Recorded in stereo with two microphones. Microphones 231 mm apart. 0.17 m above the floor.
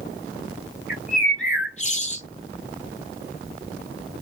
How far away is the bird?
About 1.4 m.